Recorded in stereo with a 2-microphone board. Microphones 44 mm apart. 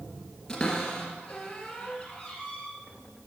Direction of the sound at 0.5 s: 15° left (ahead or behind).